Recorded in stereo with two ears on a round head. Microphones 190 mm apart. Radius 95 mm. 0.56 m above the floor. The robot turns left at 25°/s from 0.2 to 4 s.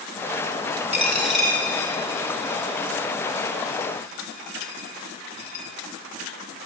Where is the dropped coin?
10° right (ahead or behind), 1.3 m; by 5.7 s 65° left (ahead or behind), 1.3 m.